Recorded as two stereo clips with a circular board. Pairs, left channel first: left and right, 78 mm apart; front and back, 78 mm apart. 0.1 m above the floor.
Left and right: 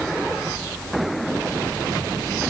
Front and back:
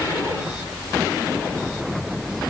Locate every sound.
Only background noise.